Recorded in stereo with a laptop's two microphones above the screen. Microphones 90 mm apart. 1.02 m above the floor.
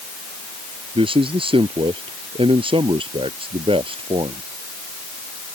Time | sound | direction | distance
0.9 | a man speaking | 85° right | ?